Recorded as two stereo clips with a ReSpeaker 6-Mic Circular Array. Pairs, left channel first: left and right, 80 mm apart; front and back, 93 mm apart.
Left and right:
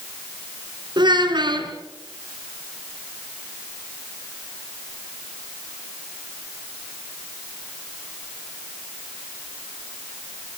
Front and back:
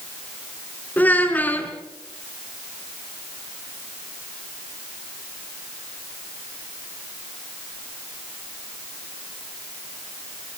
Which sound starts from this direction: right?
A child speaking, at 1.0 s.